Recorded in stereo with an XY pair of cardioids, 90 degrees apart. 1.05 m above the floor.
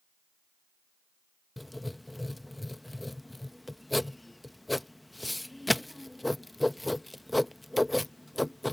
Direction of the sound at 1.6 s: 10° left.